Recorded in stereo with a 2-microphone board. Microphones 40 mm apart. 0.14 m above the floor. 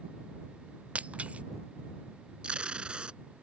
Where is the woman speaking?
I don't hear a woman speaking.